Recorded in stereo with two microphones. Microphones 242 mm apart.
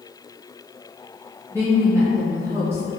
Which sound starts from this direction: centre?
A woman speaking, at 1.5 s.